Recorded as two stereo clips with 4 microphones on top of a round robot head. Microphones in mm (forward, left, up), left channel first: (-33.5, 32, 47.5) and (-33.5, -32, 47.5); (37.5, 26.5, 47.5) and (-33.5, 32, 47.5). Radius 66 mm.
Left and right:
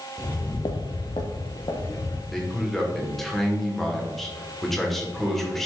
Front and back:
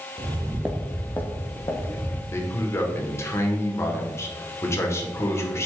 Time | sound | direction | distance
0.2 | footsteps | 155° left | 0.9 m
2.3 | a man speaking | 10° left | 1.5 m